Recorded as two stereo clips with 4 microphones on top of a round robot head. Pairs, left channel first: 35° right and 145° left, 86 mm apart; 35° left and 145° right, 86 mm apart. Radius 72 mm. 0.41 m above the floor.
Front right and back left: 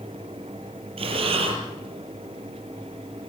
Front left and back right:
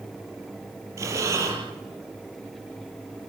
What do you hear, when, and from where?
1.0 s breathing: 160° left, 4.5 m